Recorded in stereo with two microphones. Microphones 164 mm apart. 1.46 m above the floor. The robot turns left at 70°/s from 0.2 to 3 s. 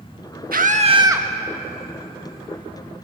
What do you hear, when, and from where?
0.5 s a scream: 115° right, 1.6 m; by 1.3 s 170° right, 1.6 m